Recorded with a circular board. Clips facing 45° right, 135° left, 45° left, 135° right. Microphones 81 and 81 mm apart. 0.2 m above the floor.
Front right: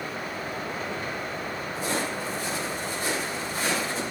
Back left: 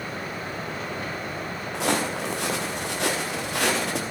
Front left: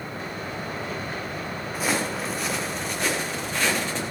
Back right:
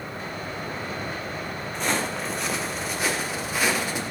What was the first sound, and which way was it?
Footsteps, 130° left.